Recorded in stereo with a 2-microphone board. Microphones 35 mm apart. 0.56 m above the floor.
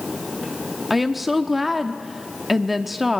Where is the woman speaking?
5° right (ahead or behind), 0.7 m.